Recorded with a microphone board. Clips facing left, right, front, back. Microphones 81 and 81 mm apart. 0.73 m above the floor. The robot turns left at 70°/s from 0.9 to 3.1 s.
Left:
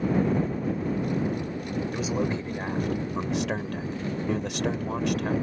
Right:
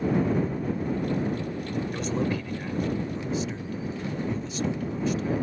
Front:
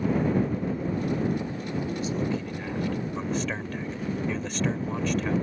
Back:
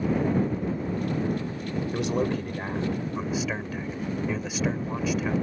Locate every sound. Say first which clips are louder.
1.9 s a man speaking: even, back 5 dB; straight behind; by 5.3 s 100° left